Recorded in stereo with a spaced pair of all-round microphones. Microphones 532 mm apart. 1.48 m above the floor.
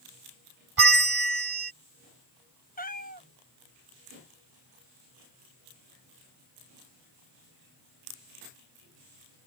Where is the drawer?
I don't hear a drawer.